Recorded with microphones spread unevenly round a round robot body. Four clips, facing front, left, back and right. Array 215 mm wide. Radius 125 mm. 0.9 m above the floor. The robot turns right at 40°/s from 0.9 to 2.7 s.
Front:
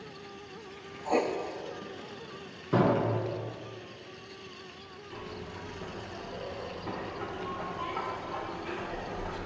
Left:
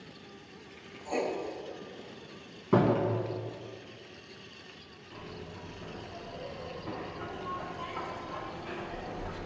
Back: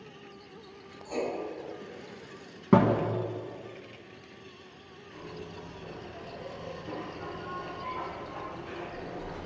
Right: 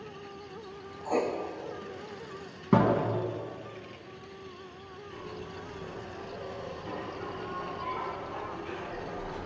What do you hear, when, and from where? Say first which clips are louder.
1.1 s writing: right 3 dB, front 5 dB; 45° right, 1.0 m; by 1.3 s 35° right, 1.0 m
2.7 s a thud: right 1 dB, back 3 dB; 155° right, 1.6 m
5.1 s a zipper: right 2 dB, front 1 dB; 15° right, 2 m